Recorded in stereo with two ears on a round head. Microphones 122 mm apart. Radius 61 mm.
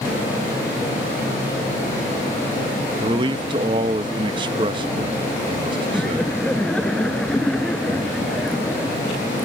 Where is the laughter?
5° left (ahead or behind).